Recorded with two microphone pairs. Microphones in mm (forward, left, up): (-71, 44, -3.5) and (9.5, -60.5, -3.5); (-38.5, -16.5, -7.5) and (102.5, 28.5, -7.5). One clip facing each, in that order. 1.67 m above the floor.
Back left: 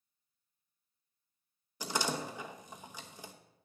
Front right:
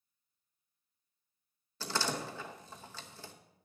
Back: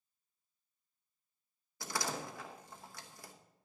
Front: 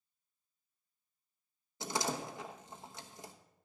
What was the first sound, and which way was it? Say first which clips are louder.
A door slam: back left 1 dB, front 3 dB; 65° left.